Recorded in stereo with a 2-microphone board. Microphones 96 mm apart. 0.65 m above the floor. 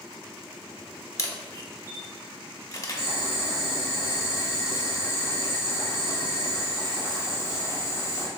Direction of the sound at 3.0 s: 35° left (ahead or behind).